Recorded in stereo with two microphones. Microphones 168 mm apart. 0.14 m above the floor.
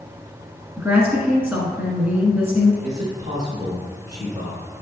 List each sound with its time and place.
0.8 s a woman speaking: 5° right (ahead or behind), 1.5 m
2.8 s a man speaking: 25° right (ahead or behind), 1.5 m